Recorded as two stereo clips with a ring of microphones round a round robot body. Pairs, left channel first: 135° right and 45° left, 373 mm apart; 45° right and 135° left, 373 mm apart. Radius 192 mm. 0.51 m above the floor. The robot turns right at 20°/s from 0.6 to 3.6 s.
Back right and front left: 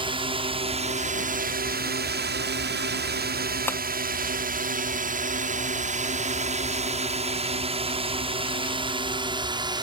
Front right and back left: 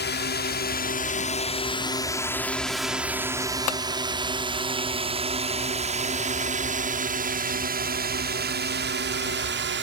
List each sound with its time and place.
0.0 s a drone: 20° right; by 9.8 s 115° left
3.7 s tapping: 50° right